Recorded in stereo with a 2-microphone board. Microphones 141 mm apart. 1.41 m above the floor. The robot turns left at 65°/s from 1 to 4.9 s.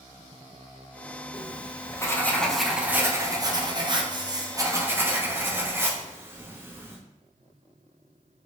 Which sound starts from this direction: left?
Writing, at 1.3 s.